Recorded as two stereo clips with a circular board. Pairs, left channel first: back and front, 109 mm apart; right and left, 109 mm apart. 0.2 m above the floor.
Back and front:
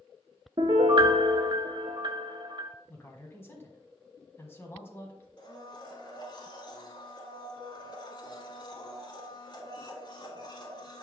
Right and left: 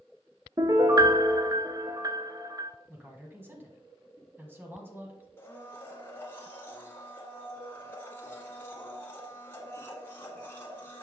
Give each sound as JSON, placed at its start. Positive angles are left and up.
{"t": 0.6, "sound": "a piano", "azimuth_deg": 35, "distance_m": 0.6}
{"t": 2.9, "sound": "a man speaking", "azimuth_deg": 135, "distance_m": 1.3}
{"t": 5.4, "sound": "a blender", "azimuth_deg": -155, "distance_m": 1.5}